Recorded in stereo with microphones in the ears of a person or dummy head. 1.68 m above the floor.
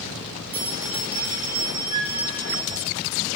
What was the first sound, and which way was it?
A bell, 30° right (ahead or behind).